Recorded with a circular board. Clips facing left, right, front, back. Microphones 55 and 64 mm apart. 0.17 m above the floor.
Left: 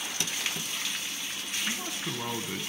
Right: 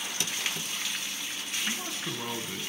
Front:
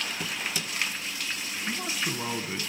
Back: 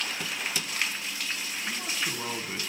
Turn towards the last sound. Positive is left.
turn(degrees=100)